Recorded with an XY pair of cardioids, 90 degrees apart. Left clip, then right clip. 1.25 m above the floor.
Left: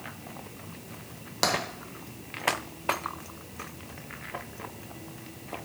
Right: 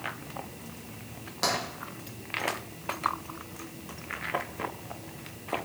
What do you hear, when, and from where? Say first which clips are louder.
1.4 s tapping: left 2 dB; 55° left, 0.5 m